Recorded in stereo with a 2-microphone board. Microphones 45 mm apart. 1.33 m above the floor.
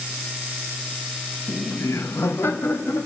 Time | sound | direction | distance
1.5 | laughter | 80° left | 1.1 m